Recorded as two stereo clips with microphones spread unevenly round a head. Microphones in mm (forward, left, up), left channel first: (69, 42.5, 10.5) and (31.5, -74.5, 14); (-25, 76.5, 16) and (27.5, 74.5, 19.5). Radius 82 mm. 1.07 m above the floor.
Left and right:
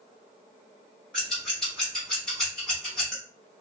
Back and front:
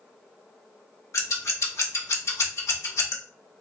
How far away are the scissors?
About 0.8 m.